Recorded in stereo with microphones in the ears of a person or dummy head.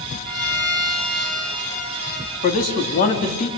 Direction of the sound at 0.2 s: 5° left (ahead or behind).